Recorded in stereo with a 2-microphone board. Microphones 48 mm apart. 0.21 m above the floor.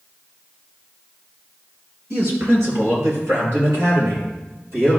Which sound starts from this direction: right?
A man speaking, at 2.1 s.